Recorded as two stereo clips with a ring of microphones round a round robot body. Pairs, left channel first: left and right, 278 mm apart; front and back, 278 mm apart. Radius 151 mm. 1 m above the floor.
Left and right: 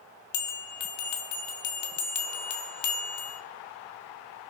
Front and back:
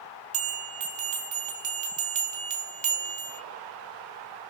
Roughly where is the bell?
Behind left.